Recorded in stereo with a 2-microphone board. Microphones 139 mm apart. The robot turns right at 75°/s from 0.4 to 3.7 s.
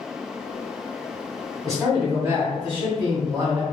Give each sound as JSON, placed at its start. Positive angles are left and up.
{"t": 1.6, "sound": "a man speaking", "azimuth_deg": 170, "distance_m": 1.4}